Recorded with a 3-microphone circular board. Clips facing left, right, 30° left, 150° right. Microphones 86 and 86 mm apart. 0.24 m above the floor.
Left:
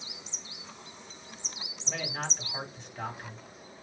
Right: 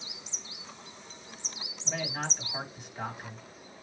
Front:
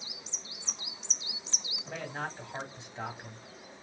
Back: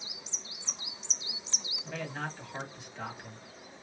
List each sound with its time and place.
1.8 s a man speaking: 15° right, 1.7 m